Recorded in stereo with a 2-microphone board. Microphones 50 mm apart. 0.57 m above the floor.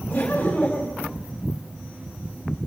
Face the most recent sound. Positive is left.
turn(degrees=15)  # may be behind; listen again after turning